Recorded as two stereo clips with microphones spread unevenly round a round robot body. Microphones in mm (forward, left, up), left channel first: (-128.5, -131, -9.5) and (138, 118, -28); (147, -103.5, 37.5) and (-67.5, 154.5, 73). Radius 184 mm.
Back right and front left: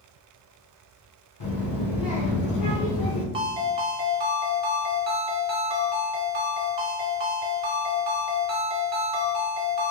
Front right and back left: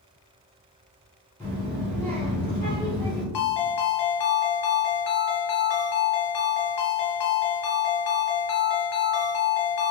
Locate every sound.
1.4 s a child speaking: 130° right, 1.1 m
3.3 s a ringtone: 35° right, 1.3 m